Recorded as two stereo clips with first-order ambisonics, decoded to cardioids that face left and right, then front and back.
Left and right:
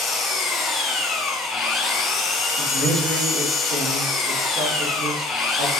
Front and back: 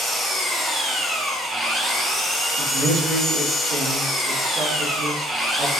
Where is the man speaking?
130° right, 2.5 m.